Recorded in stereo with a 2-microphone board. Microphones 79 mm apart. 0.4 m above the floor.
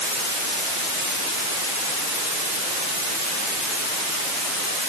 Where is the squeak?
No squeak in this recording.